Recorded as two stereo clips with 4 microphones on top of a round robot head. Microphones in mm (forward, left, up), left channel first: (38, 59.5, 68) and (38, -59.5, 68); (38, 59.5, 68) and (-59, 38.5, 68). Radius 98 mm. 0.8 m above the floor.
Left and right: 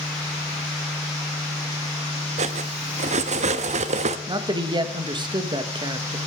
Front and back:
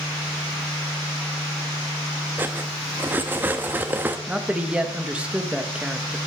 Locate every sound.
2.4 s cutlery clinking: 95° right, 0.6 m
4.3 s a man speaking: 95° right, 1.1 m